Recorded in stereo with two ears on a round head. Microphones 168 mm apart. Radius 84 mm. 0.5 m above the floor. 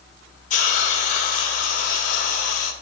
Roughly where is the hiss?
Left.